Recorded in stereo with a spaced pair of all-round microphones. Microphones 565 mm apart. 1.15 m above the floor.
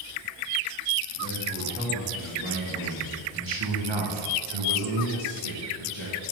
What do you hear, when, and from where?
1.1 s a man speaking: 10° right (ahead or behind), 2 m; by 6.2 s 50° right (ahead or behind), 1.2 m